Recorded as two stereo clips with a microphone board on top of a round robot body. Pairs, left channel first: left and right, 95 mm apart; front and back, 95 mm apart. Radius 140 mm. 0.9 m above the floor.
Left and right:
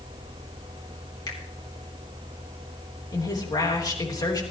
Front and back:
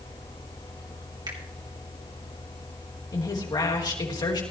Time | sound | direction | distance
1.3 | a finger snap | 135° left | 3 m
3.1 | a woman speaking | 45° left | 3.5 m